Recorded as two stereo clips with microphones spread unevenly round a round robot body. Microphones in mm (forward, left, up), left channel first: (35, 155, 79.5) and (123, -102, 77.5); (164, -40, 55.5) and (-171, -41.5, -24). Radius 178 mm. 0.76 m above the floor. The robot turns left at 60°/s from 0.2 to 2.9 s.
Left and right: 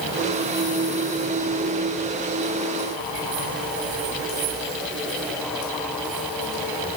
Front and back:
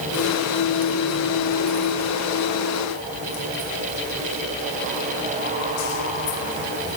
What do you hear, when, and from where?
Only background noise.